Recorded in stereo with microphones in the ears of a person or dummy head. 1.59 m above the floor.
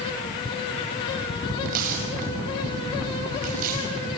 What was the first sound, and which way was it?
Tearing paper, 50° right (ahead or behind).